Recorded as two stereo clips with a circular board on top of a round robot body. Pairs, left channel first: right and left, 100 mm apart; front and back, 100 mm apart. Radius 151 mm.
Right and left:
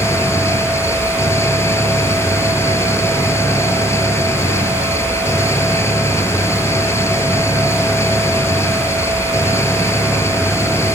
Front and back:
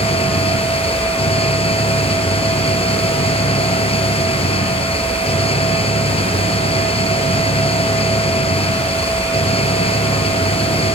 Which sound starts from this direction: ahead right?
An engine running, at 0.0 s.